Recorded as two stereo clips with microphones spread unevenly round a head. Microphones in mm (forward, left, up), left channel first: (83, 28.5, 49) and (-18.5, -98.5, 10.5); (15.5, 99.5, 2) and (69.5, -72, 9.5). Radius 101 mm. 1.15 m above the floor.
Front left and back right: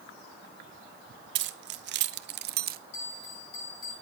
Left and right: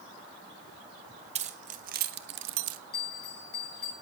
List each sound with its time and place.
1.4 s keys jangling: 135° right, 1.4 m; by 2.8 s 95° right, 0.9 m
2.9 s a bell: 75° left, 7 m